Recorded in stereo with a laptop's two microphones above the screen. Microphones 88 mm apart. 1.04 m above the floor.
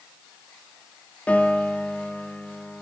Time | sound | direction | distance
1.3 | a piano | 15° left (ahead or behind) | 0.5 m